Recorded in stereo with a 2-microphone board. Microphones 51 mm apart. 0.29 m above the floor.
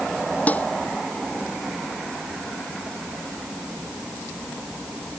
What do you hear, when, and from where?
0.5 s dishes clattering: 30° left (ahead or behind)